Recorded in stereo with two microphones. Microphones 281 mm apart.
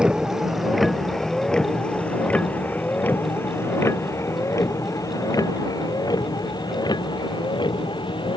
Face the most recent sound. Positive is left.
turn(degrees=15)  # may be behind; listen again after turning